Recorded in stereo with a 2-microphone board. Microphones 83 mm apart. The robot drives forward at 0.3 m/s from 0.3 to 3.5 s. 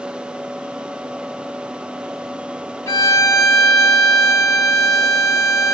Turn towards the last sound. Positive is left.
turn(degrees=40)  # may be behind; listen again after turning